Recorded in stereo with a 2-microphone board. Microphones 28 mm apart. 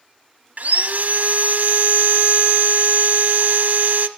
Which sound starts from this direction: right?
Sawing, at 0.6 s.